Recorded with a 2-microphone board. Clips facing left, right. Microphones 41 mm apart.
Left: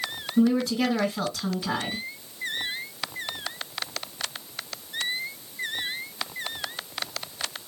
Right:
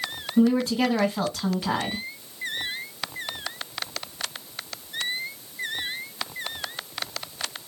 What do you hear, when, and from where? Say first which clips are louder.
0.4 s a woman speaking: right 1 dB; 45° right (ahead or behind), 1.9 m